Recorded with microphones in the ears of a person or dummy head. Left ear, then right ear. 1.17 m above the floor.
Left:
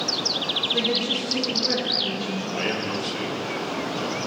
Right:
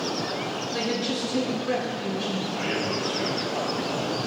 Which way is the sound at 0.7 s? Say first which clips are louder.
Left 4 dB; 5° left (ahead or behind).